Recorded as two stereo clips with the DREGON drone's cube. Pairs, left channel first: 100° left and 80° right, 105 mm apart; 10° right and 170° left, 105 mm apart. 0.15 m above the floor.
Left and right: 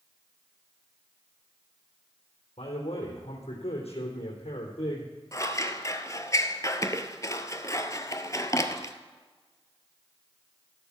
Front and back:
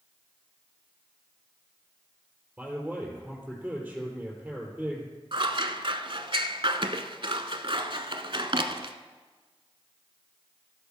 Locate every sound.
2.6 s a man speaking: 85° left, 3.5 m
5.3 s scissors: 150° left, 0.9 m